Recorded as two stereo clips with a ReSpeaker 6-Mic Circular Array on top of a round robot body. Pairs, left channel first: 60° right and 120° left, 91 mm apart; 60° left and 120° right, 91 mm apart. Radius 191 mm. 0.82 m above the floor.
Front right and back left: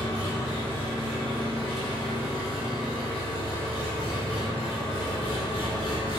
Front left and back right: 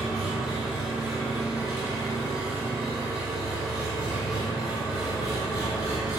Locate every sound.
0.0 s an engine running: 35° right, 1.9 m